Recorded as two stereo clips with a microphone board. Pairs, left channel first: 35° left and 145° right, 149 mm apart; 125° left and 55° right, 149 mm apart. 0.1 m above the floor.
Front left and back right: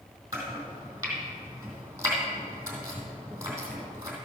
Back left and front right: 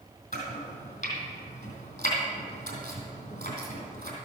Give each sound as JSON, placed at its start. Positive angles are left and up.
{"t": 0.3, "sound": "chopping", "azimuth_deg": 145, "distance_m": 3.0}